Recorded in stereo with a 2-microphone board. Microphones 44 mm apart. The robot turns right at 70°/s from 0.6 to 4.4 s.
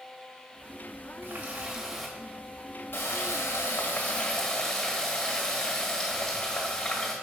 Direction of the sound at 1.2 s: 60° right.